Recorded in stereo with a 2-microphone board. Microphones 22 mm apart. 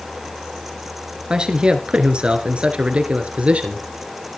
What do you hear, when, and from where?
1.3 s a man speaking: 35° right (ahead or behind), 2.5 m; by 3.8 s 65° right (ahead or behind), 2.5 m